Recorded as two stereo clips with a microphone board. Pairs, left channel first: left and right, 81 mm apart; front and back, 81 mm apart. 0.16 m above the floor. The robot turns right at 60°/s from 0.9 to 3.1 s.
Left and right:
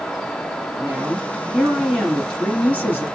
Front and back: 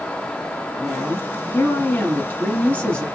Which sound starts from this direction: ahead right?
A woman speaking, at 0.8 s.